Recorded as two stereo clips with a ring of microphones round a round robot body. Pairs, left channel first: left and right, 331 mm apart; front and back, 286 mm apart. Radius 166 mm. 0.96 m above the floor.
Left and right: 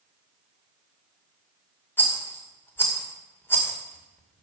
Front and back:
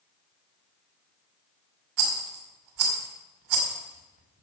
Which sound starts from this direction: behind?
A rattle, at 2.0 s.